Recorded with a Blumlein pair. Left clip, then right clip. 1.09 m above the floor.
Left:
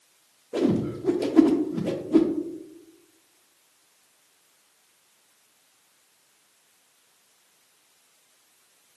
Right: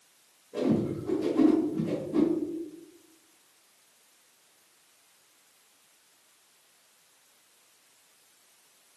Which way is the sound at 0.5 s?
35° left.